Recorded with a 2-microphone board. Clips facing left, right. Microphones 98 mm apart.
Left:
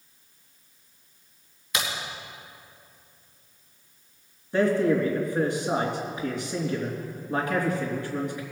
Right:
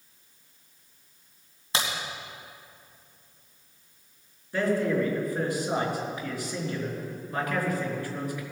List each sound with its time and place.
1.7 s a crack: 30° right (ahead or behind), 2.5 m
4.5 s a man speaking: 20° left (ahead or behind), 3 m